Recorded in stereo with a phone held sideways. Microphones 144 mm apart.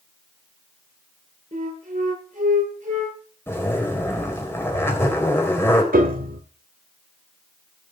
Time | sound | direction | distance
1.5 | a flute | 60° right (ahead or behind) | 9.5 m
3.5 | a zipper | 15° left (ahead or behind) | 3.5 m
5.9 | a piano | 80° right | 1.8 m